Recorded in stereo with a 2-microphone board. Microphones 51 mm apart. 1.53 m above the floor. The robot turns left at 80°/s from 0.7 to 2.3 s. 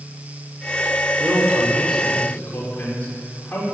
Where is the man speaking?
120° right, 5.5 m; by 3.6 s 150° left, 5.5 m.